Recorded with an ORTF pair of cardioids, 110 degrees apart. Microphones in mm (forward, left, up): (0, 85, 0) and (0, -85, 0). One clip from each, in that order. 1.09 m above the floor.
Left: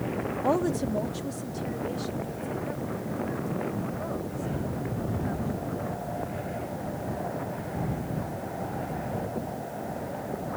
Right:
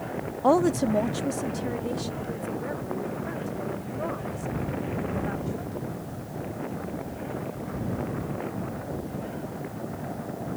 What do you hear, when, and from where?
0.4 s a woman speaking: 35° right